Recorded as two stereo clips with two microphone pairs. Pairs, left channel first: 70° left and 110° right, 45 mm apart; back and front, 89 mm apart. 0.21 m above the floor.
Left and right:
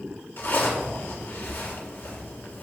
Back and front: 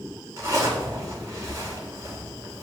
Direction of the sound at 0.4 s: 40° left.